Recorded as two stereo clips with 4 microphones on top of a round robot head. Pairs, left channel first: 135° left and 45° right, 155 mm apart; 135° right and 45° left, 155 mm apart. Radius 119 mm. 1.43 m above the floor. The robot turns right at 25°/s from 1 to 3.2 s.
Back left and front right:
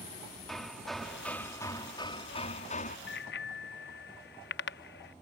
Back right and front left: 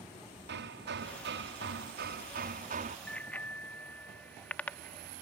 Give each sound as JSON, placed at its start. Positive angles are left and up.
{"t": 0.5, "sound": "hammering", "azimuth_deg": 45}
{"t": 3.1, "sound": "a bicycle bell", "azimuth_deg": 140}